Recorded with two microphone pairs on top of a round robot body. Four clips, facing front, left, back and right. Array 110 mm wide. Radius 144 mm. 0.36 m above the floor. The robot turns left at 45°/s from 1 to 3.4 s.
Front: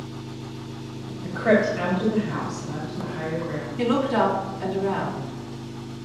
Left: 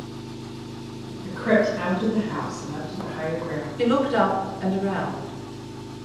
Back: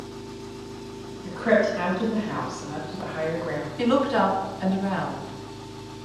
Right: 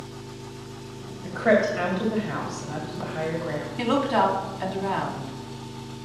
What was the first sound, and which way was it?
An engine running, 30° left.